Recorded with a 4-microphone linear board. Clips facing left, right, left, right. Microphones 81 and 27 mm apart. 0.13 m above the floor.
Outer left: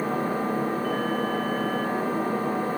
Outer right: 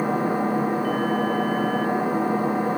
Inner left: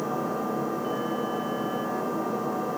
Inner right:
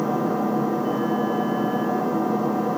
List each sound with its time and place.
0.0 s an engine running: 15° right (ahead or behind), 3 m